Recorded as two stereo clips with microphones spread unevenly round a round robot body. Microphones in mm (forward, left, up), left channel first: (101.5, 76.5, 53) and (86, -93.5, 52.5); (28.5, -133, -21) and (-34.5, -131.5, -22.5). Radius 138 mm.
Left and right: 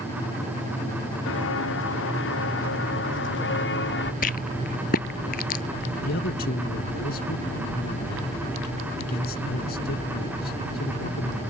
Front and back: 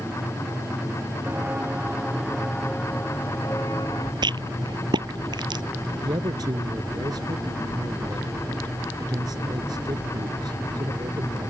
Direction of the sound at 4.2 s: 140° left.